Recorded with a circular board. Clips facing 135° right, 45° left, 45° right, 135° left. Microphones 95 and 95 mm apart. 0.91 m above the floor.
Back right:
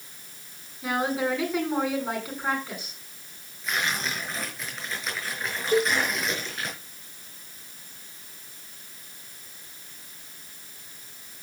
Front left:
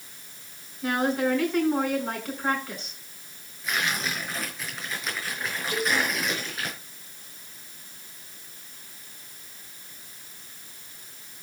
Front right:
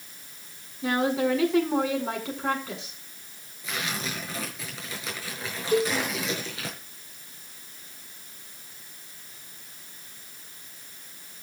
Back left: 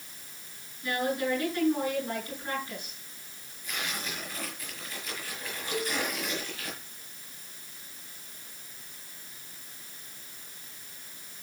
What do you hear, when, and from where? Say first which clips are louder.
0.8 s a woman speaking: front left 2 dB, front right 5 dB; 50° right, 9 m
3.6 s tearing paper: even, front right 4 dB; 45° right, 6 m
5.7 s a cowbell: back right 5 dB, front right 9 dB; 85° right, 4 m